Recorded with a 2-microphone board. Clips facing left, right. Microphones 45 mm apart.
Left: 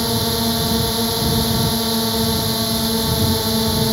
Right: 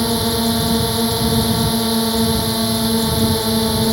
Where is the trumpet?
I don't hear a trumpet.